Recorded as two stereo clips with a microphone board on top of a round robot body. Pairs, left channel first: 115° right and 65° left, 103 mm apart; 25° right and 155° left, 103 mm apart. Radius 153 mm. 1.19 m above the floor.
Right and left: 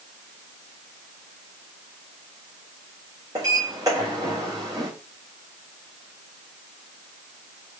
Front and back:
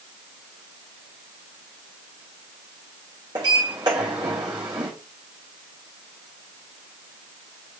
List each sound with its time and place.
3.4 s a sliding door: 115° left, 0.6 m